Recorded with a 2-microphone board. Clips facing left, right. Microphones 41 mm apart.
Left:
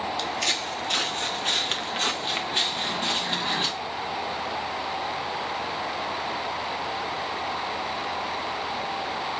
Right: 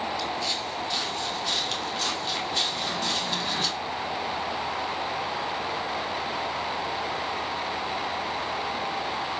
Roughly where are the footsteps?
Left.